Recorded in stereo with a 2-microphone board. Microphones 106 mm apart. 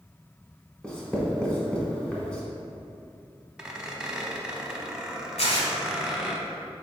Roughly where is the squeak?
Centre.